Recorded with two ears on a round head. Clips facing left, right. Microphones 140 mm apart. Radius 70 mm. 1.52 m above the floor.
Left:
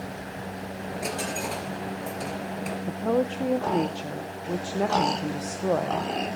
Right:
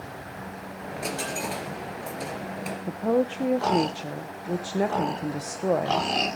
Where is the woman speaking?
10° right (ahead or behind), 0.7 m.